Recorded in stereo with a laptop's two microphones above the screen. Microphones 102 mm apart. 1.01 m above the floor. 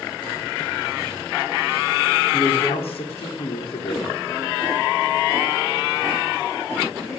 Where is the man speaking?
75° left (ahead or behind), 3.5 m.